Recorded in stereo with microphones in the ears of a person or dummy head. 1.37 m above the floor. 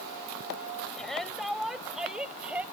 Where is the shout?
5° left (ahead or behind); by 2.6 s 5° right (ahead or behind).